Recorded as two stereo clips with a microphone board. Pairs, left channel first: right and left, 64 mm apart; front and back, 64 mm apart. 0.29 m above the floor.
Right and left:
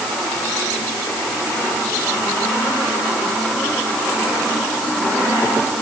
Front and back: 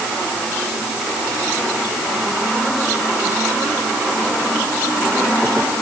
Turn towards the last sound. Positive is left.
No sound to turn to.